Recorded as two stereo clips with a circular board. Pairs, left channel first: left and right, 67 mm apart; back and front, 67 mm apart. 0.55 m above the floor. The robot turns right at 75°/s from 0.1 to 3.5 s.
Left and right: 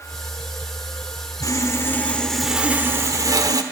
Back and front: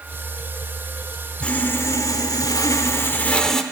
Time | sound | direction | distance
1.4 | sawing | 105° left | 1.0 m